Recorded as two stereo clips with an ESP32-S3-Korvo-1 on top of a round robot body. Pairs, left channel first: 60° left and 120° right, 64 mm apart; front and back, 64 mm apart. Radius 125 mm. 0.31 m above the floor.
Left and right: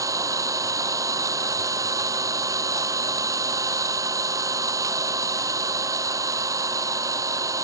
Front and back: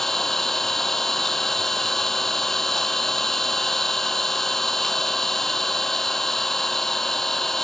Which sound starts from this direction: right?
An engine running, at 0.0 s.